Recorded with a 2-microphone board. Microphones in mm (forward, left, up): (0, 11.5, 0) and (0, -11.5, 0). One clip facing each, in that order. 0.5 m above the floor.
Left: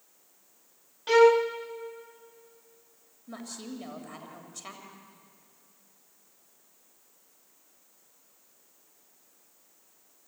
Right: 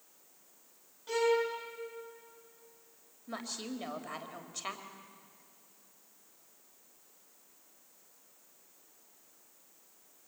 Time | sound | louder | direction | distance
1.1 | a violin | left 10 dB | 55° left (ahead or behind) | 1.7 m
3.3 | a woman speaking | right 1 dB | 20° right (ahead or behind) | 3 m